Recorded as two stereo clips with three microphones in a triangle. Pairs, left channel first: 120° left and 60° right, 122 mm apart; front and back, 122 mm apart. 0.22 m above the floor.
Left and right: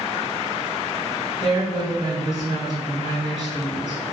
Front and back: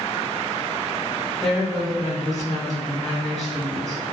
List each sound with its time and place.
1.4 s a woman speaking: 85° right, 1.5 m